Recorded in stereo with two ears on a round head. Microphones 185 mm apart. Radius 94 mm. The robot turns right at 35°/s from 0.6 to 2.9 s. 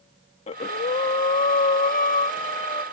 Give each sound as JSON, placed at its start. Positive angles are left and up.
{"t": 0.5, "sound": "breathing", "azimuth_deg": 55}